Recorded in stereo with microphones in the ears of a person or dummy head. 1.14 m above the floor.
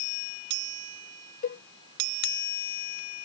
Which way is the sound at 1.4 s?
45° left (ahead or behind).